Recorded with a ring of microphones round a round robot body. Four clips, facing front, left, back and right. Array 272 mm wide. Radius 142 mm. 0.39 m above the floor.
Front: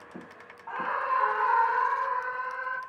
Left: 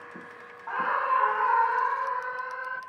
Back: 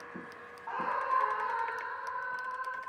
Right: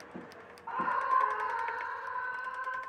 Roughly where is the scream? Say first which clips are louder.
Left 4 dB, front 3 dB; left.